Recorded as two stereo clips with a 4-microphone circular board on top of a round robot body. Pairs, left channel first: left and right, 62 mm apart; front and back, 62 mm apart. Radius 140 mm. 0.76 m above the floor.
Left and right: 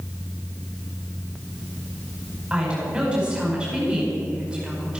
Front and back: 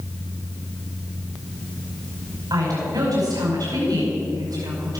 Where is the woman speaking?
160° right, 5 m.